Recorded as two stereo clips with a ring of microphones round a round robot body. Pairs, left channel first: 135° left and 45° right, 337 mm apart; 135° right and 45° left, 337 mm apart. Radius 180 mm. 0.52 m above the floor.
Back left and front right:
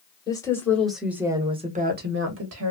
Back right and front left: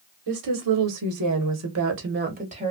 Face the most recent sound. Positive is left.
turn(degrees=-25)